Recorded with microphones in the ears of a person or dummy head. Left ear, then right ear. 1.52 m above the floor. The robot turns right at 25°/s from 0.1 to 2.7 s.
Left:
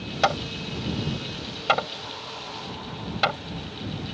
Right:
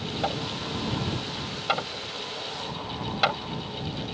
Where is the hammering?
65° left (ahead or behind); by 3.4 s 5° left (ahead or behind).